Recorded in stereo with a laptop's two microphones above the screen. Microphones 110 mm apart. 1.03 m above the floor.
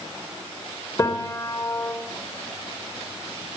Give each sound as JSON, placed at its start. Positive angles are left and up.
{"t": 1.0, "sound": "a piano", "side_deg": 25, "distance_m": 4.5}